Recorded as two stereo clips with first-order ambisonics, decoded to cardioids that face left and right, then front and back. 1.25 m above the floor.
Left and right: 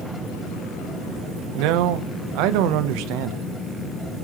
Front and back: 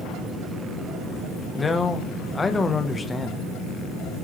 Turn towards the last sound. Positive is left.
turn(degrees=-75)